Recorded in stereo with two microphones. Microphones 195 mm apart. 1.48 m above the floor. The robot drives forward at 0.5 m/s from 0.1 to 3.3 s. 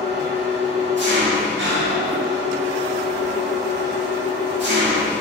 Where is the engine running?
60° right (ahead or behind), 2 m; by 5.2 s 65° right (ahead or behind), 2.0 m.